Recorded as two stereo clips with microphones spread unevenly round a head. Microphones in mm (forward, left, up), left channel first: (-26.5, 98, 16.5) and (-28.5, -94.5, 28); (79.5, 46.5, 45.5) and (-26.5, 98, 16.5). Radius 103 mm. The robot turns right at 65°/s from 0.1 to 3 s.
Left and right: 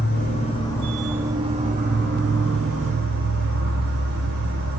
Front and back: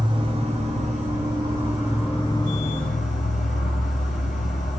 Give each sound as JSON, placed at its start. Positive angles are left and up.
{"t": 0.0, "sound": "an insect", "azimuth_deg": 120, "distance_m": 5.0}